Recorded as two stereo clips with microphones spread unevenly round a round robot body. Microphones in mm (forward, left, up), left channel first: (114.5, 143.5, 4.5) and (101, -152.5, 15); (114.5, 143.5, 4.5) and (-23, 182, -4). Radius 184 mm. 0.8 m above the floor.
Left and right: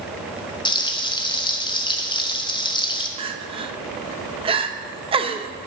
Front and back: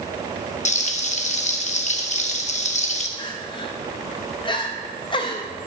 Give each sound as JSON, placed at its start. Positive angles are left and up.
{"t": 0.7, "sound": "frying", "azimuth_deg": 15, "distance_m": 1.3}
{"t": 3.2, "sound": "crying", "azimuth_deg": -35, "distance_m": 0.8}